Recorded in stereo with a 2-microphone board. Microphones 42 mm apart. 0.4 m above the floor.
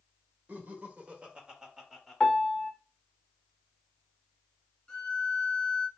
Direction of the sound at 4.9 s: 10° left (ahead or behind).